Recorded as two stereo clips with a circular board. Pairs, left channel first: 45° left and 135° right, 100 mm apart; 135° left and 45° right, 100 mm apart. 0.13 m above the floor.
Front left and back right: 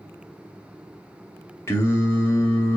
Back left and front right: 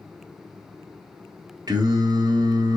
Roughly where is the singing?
Ahead.